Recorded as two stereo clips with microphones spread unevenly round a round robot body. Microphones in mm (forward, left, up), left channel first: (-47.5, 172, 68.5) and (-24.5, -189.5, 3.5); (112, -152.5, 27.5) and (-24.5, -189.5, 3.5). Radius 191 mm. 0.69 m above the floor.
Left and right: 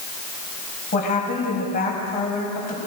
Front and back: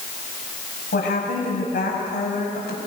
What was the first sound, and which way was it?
A woman speaking, 25° left.